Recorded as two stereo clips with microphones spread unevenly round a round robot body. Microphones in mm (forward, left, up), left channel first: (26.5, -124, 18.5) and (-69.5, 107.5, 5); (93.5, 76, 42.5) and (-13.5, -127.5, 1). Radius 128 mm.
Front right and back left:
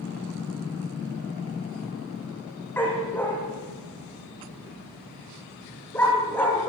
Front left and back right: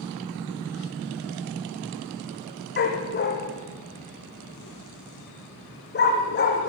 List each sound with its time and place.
2.8 s a dog barking: 15° left, 6.5 m